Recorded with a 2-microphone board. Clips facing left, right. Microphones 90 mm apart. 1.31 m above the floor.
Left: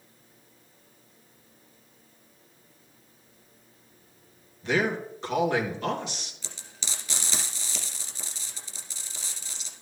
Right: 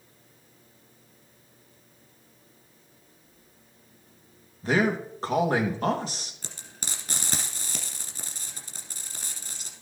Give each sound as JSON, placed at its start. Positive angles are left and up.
{"t": 4.6, "sound": "a man speaking", "side_deg": -35, "distance_m": 2.0}
{"t": 6.4, "sound": "frying", "side_deg": -50, "distance_m": 2.0}